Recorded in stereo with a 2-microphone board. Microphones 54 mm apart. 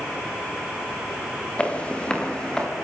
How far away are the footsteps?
About 6 m.